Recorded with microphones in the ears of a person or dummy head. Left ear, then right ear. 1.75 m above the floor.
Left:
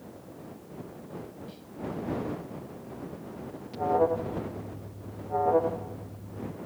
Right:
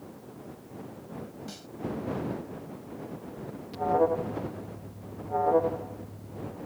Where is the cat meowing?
No cat meowing in this recording.